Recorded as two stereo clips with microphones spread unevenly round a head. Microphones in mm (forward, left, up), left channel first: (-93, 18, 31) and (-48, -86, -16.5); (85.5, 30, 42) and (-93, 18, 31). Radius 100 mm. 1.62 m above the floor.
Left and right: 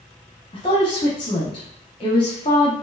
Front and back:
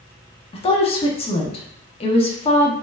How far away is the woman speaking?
About 0.6 m.